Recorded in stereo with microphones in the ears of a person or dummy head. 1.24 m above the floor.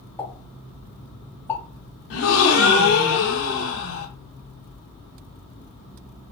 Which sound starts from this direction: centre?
A pop, at 0.2 s.